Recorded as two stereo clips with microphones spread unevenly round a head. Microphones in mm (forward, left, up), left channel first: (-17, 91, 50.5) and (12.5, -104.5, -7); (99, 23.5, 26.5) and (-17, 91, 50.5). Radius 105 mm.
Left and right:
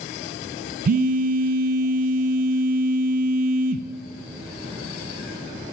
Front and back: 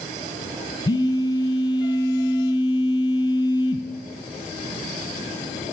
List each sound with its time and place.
0.8 s a phone buzzing: 75° right, 0.5 m